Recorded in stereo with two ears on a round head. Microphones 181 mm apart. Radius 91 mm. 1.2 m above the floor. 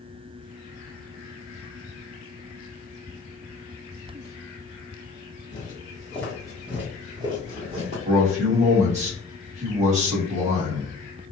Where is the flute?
No flute in this recording.